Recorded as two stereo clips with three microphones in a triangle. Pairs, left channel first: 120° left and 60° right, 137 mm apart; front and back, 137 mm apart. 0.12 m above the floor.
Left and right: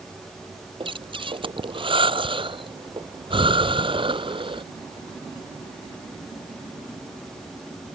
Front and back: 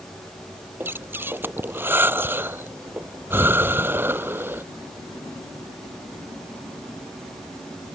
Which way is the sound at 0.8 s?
105° right.